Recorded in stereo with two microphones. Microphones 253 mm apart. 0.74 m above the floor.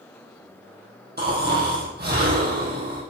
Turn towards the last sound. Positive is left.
turn(degrees=-40)  # may be behind; listen again after turning